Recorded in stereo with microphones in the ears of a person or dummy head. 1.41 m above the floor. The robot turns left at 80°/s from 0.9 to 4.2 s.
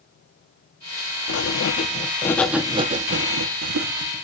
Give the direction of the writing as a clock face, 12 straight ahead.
9 o'clock.